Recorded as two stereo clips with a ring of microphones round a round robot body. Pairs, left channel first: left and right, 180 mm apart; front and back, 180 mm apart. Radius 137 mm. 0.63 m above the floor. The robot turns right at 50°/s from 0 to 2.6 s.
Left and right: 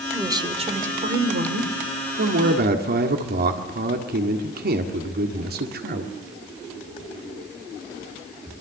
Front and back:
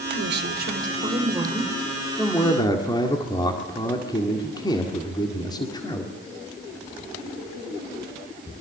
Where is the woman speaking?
170° right, 2.5 m; by 1.7 s 90° right, 2.5 m.